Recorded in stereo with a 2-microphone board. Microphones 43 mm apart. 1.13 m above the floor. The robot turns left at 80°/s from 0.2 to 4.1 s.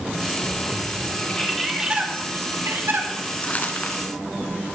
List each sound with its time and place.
1.2 s a bird: 35° left, 2.5 m; by 3.1 s 115° right, 2.5 m
3.4 s crumpling: 30° left (ahead or behind), 1.9 m; by 4.0 s 60° left (ahead or behind), 1.9 m